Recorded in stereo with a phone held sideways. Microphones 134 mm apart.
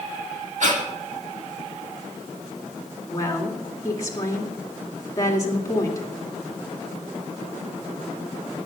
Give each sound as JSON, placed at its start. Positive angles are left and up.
{"t": 0.6, "sound": "breathing", "side_deg": -65, "distance_m": 2.0}
{"t": 3.1, "sound": "a woman speaking", "side_deg": 25, "distance_m": 2.5}